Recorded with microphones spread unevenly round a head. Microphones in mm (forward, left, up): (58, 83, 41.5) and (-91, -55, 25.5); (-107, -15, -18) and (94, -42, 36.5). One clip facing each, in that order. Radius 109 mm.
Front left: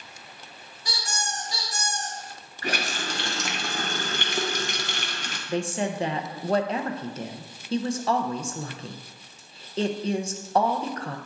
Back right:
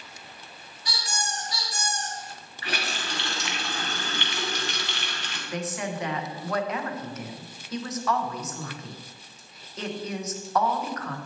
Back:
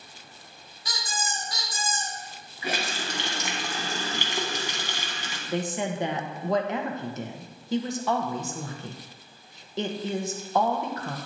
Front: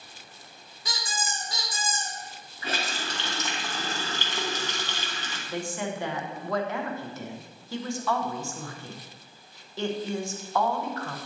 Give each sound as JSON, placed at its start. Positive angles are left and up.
{"t": 0.8, "sound": "a squeak", "azimuth_deg": -10, "distance_m": 2.5}
{"t": 2.6, "sound": "a running tap", "azimuth_deg": 90, "distance_m": 0.9}
{"t": 5.5, "sound": "a woman speaking", "azimuth_deg": 105, "distance_m": 0.8}